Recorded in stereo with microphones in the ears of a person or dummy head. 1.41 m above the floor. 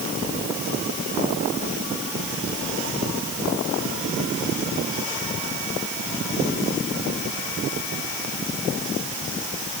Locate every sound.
Only background noise.